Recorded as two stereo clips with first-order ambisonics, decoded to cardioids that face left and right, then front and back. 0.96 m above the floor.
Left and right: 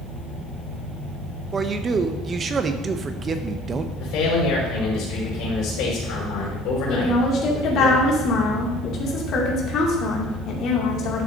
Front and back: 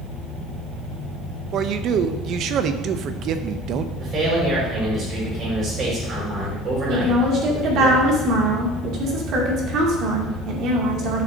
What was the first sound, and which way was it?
A man speaking, 150° right.